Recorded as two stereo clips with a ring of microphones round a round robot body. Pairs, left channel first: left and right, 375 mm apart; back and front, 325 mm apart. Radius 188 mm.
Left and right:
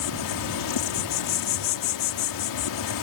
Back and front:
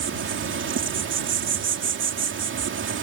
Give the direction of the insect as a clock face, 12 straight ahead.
10 o'clock.